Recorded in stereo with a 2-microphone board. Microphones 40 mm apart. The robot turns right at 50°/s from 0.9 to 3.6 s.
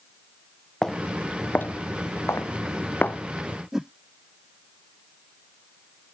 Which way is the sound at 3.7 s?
15° right (ahead or behind).